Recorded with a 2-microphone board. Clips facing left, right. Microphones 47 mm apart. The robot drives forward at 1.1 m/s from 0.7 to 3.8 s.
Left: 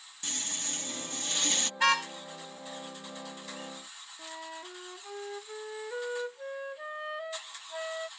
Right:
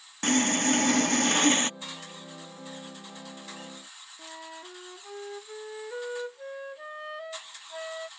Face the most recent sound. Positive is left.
turn(degrees=5)  # may be behind; listen again after turning